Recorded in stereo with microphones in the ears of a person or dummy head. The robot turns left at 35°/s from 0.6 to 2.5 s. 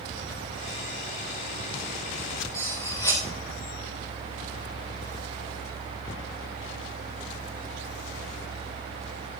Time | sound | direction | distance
2.5 | cutlery clinking | 20° left (ahead or behind) | 3.5 m